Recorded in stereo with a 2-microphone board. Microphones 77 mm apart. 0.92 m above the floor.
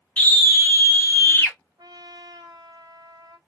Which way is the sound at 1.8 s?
70° right (ahead or behind).